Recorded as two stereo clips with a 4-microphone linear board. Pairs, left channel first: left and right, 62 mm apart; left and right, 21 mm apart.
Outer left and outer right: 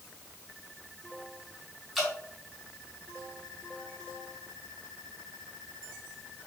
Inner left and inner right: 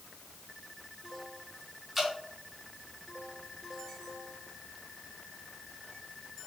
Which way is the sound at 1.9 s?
Centre (ahead or behind).